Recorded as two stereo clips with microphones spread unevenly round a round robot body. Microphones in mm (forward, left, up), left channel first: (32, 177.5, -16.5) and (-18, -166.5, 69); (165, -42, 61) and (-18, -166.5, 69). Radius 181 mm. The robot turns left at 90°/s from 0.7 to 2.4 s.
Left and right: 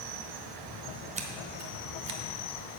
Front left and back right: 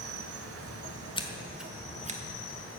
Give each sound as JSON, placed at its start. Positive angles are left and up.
{"t": 0.0, "sound": "an insect", "azimuth_deg": -135, "distance_m": 1.0}
{"t": 1.2, "sound": "scissors", "azimuth_deg": -20, "distance_m": 1.4}